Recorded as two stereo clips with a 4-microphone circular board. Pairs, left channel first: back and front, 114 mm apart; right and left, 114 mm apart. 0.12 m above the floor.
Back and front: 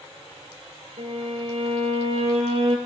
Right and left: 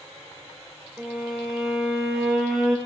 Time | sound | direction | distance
1.0 | a violin | straight ahead | 5 m